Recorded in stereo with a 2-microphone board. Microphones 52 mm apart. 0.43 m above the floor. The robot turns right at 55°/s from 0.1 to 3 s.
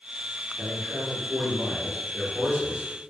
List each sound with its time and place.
0.6 s a man speaking: 10° right (ahead or behind), 1.0 m